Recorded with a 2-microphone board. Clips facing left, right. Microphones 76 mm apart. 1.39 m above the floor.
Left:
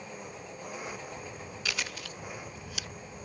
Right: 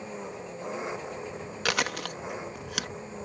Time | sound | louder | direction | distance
0.0 | an engine running | right 5 dB | 25° right (ahead or behind) | ?
1.6 | chewing | right 9 dB | 65° right (ahead or behind) | ?